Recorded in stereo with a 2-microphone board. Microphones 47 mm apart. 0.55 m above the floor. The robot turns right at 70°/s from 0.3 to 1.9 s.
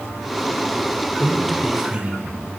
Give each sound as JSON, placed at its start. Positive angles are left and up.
{"t": 1.2, "sound": "a man speaking", "azimuth_deg": 160, "distance_m": 1.9}